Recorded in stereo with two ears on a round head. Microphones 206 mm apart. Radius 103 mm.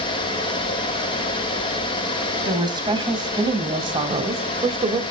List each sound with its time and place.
2.5 s a woman speaking: 20° right (ahead or behind), 3 m; by 5.0 s 25° right (ahead or behind), 1.8 m